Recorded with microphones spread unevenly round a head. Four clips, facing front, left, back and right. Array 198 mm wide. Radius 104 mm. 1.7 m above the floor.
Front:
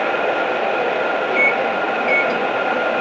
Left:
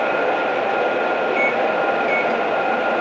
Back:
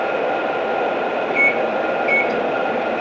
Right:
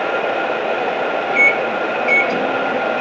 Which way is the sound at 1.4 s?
90° right.